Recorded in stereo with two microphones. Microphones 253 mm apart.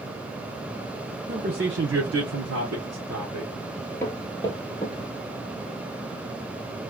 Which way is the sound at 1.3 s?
25° right (ahead or behind).